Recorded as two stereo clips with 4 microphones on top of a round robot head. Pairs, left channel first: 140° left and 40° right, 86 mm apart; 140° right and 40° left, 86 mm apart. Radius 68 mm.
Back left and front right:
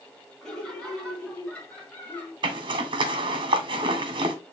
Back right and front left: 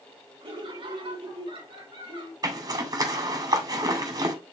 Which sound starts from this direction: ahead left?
Laughter, at 0.4 s.